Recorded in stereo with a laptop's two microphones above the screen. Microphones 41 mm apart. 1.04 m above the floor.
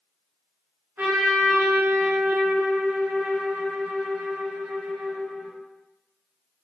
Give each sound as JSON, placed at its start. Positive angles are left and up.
{"t": 1.0, "sound": "a trumpet", "side_deg": -50, "distance_m": 0.7}